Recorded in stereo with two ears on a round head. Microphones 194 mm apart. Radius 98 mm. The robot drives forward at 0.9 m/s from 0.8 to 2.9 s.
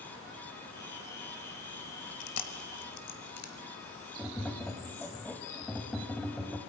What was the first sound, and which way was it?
Chewing, 70° left (ahead or behind).